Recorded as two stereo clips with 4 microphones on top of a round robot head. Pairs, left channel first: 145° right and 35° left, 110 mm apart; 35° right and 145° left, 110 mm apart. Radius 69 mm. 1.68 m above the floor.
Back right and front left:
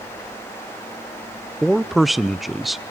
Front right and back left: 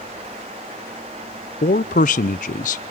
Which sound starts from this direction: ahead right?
A man speaking, at 1.6 s.